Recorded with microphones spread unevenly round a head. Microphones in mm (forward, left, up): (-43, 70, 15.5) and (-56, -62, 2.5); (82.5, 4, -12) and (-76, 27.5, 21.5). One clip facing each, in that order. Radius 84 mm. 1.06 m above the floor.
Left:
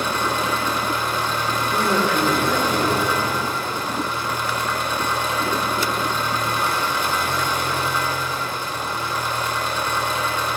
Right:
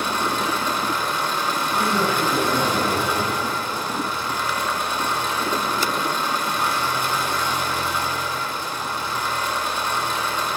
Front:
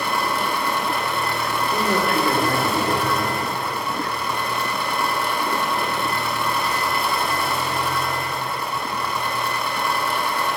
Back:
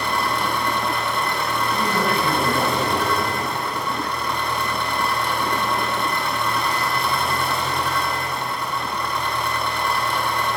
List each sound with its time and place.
0.0 s an engine running: 80° left, 2.5 m
1.7 s a man speaking: 40° left, 4 m